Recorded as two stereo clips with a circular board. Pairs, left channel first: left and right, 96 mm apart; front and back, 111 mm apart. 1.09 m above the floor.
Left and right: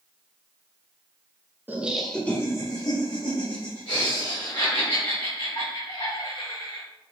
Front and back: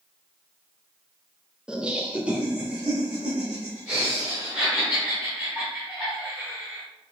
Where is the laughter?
110° right, 0.6 m; by 6.8 s 100° left, 3 m.